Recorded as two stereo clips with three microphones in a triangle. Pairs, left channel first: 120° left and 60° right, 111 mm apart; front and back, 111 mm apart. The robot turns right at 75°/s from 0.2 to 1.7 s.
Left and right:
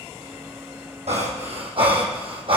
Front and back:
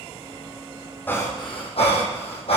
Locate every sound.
1.1 s breathing: 75° right, 3 m; by 2.6 s 25° right, 3 m